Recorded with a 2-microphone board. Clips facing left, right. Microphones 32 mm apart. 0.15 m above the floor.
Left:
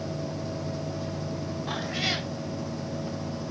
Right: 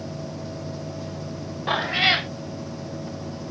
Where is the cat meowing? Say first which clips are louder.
Right 10 dB; 45° right (ahead or behind).